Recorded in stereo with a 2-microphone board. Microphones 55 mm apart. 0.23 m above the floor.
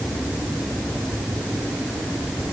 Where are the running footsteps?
No running footsteps in this recording.